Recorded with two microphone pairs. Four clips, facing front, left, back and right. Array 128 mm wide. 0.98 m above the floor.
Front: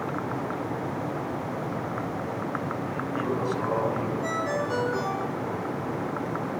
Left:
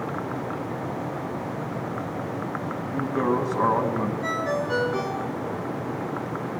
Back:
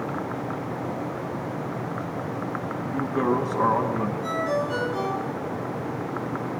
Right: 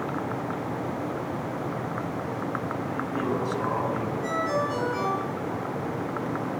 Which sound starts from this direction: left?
A ringtone, at 4.2 s.